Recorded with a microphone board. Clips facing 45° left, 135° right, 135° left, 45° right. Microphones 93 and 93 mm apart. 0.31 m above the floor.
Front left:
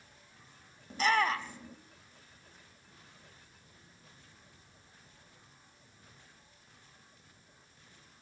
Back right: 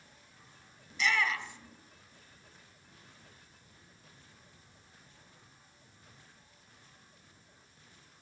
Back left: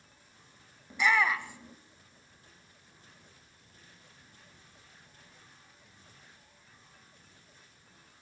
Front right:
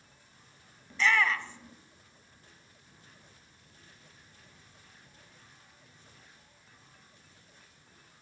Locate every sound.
0.9 s a shout: 60° left, 1.1 m